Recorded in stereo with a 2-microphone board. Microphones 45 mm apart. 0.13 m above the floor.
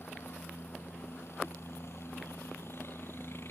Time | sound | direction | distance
0.0 | a helicopter | 70° left (ahead or behind) | ?